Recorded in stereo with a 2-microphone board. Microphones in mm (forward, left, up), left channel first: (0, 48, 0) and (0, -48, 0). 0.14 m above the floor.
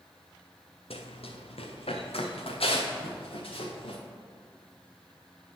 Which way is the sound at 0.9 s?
85° left.